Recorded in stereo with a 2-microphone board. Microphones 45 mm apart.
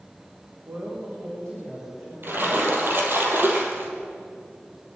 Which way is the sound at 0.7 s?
75° right (ahead or behind).